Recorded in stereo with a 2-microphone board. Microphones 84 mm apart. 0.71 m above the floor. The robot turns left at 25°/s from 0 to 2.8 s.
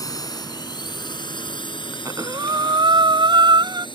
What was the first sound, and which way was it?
A drone, 45° left (ahead or behind).